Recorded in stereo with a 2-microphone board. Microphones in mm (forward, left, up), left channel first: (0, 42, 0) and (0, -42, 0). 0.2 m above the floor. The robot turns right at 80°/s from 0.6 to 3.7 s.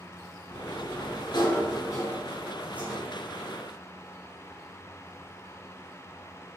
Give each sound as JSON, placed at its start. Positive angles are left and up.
{"t": 0.5, "sound": "a sliding door", "azimuth_deg": 30, "distance_m": 1.2}